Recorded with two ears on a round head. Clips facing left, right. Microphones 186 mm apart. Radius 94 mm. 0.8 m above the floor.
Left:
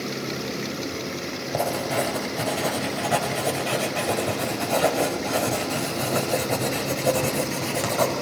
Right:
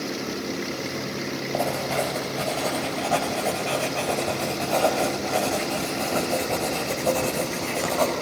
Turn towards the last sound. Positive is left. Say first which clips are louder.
# left 1 dB
turn(degrees=20)  # may be behind; listen again after turning